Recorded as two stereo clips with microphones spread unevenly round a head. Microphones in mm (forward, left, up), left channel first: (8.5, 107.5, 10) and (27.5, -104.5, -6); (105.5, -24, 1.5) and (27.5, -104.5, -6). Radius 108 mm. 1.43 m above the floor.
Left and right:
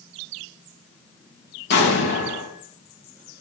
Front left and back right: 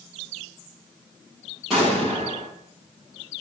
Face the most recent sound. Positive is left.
turn(degrees=135)